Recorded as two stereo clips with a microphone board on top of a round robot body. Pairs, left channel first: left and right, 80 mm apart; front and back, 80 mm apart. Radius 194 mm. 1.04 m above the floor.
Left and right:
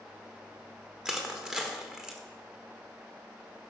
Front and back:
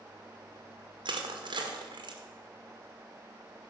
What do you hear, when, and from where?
1.1 s crushing: 175° right, 1.8 m